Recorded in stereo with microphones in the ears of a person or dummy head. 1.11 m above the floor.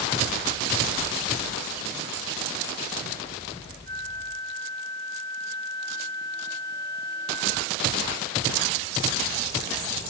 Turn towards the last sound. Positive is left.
turn(degrees=15)  # may be behind; listen again after turning